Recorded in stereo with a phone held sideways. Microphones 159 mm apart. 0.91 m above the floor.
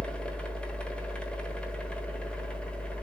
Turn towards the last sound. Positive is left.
turn(degrees=5)  # may be behind; listen again after turning